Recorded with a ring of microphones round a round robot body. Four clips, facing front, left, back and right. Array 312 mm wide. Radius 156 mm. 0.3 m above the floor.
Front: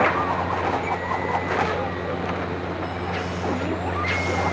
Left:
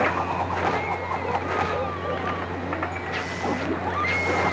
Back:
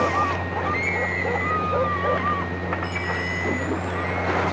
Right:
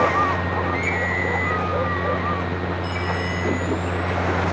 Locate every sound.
Only background noise.